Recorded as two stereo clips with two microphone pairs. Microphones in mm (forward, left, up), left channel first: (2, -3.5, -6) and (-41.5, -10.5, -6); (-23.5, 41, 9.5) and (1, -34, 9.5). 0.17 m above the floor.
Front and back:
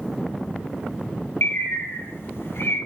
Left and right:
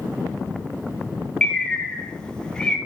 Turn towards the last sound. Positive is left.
turn(degrees=30)